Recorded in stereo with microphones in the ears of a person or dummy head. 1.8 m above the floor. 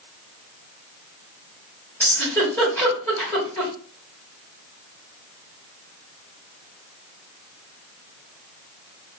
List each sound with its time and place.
2.0 s a giggle: 10° left (ahead or behind), 2.5 m